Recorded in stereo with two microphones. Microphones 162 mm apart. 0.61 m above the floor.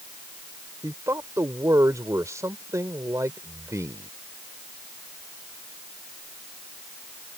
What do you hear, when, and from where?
0.8 s a man speaking: 20° right (ahead or behind)